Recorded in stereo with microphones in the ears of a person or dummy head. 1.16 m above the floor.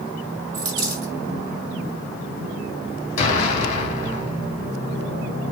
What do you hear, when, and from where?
0.5 s a dropped coin: 25° right (ahead or behind), 1.3 m
3.2 s an explosion: 40° left (ahead or behind), 1.2 m